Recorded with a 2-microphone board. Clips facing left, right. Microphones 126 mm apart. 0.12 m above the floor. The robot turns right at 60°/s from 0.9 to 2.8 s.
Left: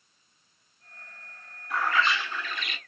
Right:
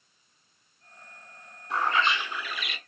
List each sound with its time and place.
1.7 s a bird: 65° right, 0.6 m; by 2.8 s straight ahead, 0.6 m